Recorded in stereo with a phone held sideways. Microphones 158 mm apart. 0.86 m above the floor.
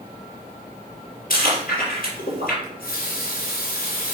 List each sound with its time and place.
1.3 s chewing: 65° left (ahead or behind), 3.5 m
2.6 s a running tap: 70° left (ahead or behind), 2.5 m